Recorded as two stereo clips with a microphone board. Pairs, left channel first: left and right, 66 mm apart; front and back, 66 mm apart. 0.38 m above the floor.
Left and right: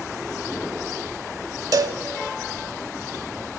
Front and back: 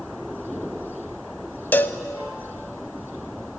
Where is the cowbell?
60° right, 0.6 m.